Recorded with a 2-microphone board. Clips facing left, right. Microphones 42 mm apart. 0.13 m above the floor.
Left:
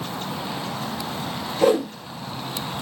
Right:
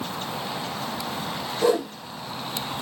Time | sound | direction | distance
1.6 | a whoosh | 65° left (ahead or behind) | 1.4 m